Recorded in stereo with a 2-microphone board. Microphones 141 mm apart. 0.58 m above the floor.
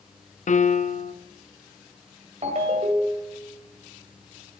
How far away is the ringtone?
About 1.8 m.